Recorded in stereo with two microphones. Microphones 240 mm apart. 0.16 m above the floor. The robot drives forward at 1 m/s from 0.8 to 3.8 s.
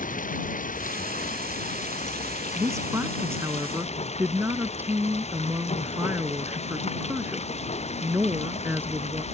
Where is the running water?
35° left (ahead or behind); by 9.3 s 25° left (ahead or behind).